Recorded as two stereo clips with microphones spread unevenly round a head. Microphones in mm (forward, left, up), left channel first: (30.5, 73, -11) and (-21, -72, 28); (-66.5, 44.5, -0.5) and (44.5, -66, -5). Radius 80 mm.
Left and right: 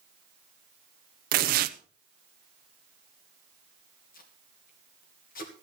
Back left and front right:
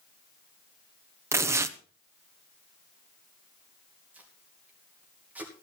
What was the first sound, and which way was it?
Tearing paper, 120° right.